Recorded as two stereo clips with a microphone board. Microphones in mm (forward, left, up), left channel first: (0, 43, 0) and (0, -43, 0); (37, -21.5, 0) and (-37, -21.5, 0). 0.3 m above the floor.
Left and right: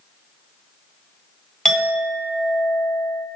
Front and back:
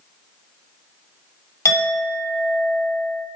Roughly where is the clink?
Ahead.